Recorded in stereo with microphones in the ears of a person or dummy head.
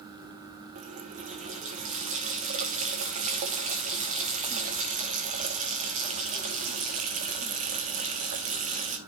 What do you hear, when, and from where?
0.8 s a running tap: 35° right (ahead or behind), 1.0 m